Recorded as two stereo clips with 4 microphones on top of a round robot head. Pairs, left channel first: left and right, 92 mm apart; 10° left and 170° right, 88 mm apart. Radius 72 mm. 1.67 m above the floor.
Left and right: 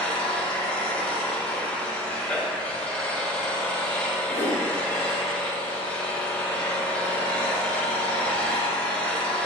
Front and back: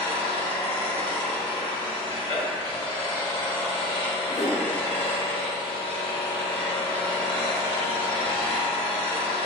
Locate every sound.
0.0 s an engine running: 15° left, 1.3 m
4.3 s a whoosh: 55° right, 2.5 m